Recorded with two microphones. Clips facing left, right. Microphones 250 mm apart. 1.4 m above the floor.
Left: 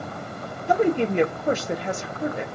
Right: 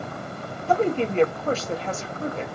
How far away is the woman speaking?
About 0.7 m.